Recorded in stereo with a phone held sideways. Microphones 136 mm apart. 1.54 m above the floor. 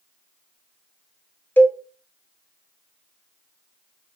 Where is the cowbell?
15° left (ahead or behind), 1.3 m.